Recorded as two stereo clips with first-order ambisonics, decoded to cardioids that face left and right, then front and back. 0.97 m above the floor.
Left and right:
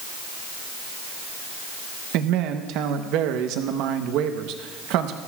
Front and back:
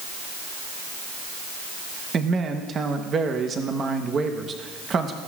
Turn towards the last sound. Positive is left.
turn(degrees=-115)